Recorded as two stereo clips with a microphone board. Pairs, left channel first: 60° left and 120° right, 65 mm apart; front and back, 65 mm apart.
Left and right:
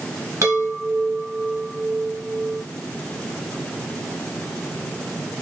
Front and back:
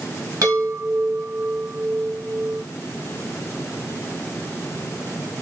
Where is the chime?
150° right, 1.6 m.